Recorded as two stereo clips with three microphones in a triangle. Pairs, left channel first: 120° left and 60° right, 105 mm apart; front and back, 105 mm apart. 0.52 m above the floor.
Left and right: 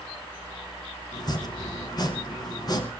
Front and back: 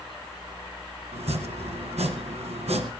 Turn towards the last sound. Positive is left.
turn(degrees=170)